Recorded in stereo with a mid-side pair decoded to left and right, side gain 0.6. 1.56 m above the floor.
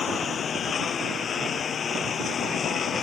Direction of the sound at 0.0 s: 35° left.